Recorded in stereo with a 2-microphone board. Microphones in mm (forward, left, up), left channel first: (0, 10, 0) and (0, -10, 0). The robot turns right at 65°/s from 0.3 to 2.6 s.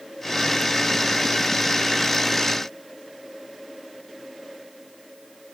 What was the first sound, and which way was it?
Only background noise.